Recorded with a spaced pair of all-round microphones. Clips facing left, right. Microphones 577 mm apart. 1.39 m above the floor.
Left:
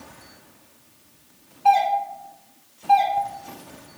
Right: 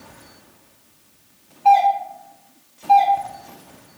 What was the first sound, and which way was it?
A doorbell, 40° left (ahead or behind).